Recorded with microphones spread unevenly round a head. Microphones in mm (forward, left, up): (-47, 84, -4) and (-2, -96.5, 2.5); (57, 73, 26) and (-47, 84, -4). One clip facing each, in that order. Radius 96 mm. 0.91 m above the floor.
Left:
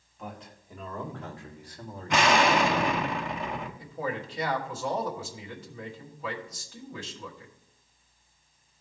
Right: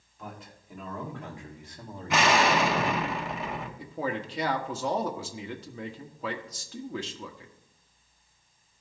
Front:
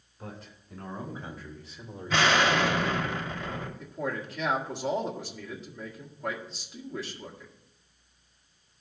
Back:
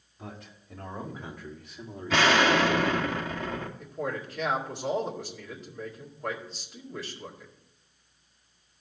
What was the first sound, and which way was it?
A man speaking, 165° right.